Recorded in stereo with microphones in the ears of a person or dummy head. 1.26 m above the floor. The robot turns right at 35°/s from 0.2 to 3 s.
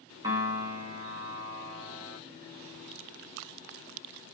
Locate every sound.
0.2 s a piano: 155° right, 1.2 m; by 2.2 s 85° right, 1.2 m